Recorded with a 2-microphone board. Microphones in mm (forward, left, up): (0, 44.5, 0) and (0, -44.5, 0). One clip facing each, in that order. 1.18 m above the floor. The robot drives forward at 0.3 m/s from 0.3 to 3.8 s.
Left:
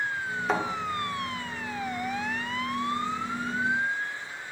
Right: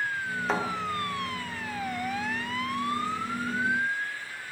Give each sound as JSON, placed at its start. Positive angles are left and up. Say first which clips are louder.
{"t": 0.5, "sound": "a thud", "louder": "left 2 dB", "side_deg": 0, "distance_m": 0.6}